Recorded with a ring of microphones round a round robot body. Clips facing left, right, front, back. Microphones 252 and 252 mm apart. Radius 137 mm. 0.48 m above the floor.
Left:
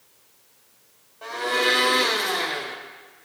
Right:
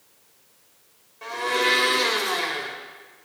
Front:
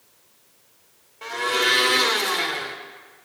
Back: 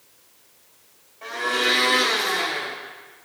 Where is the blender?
30° right, 1.5 m.